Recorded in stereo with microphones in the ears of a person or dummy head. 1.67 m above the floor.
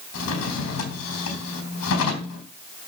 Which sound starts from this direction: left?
A drawer, at 0.1 s.